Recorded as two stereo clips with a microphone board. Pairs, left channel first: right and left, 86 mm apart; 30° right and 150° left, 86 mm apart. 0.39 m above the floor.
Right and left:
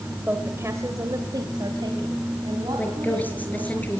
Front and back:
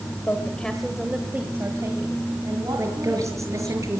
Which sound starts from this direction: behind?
A woman speaking, at 2.8 s.